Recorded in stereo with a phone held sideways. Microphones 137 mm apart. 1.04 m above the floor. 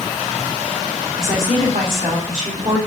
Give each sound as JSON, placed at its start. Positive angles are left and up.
{"t": 1.2, "sound": "a woman speaking", "side_deg": -70, "distance_m": 3.0}